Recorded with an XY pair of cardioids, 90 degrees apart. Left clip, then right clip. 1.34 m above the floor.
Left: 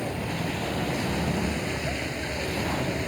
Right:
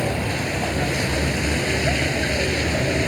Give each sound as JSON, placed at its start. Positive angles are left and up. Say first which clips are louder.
{"t": 0.0, "sound": "a vehicle", "louder": "right 7 dB", "azimuth_deg": -65}